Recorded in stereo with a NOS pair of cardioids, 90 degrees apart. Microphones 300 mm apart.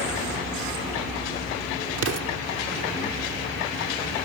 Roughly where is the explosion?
Ahead right.